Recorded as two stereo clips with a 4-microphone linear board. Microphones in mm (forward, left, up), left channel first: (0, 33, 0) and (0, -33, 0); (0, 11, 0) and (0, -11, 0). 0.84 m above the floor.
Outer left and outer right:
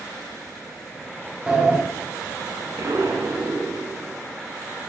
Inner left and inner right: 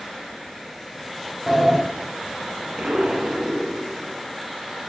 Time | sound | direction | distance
1.5 | a sliding door | 15° right (ahead or behind) | 0.7 m
2.8 | an explosion | 50° right (ahead or behind) | 0.6 m